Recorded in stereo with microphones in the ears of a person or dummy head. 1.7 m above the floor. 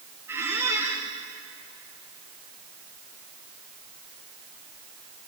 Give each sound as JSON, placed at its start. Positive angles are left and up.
{"t": 0.3, "sound": "a squeak", "side_deg": -15, "distance_m": 2.0}